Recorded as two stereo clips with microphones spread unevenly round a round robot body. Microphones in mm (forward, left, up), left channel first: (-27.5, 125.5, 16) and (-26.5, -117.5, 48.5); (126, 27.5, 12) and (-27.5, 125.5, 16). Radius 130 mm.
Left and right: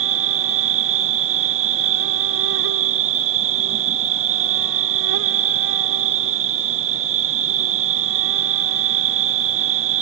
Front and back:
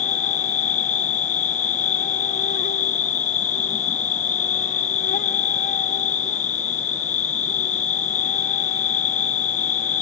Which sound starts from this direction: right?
An insect, at 0.0 s.